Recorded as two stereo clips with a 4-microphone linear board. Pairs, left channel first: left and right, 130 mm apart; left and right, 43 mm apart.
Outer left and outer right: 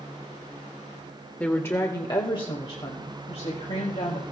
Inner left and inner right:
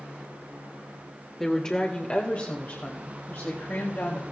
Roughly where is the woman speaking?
Centre.